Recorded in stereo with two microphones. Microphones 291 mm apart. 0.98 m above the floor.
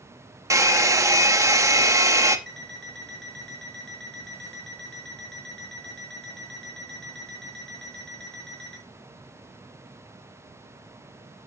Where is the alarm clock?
35° right (ahead or behind), 2.5 m.